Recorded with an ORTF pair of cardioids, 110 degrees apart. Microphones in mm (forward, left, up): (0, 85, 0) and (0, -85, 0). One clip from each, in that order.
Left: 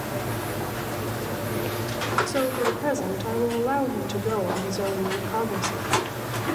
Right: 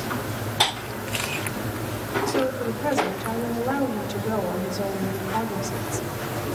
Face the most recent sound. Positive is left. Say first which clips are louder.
# left 1 dB
turn(degrees=30)